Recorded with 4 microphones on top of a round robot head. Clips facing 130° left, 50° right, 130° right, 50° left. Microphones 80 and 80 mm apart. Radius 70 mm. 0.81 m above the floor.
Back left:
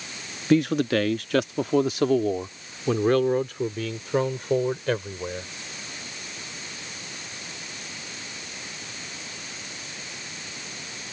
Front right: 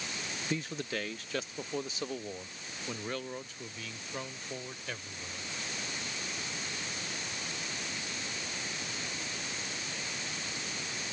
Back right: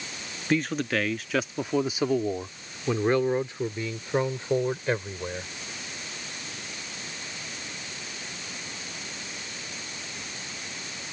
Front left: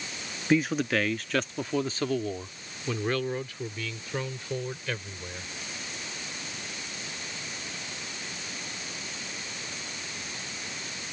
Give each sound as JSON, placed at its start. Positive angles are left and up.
{"t": 0.5, "sound": "a man speaking", "azimuth_deg": 135}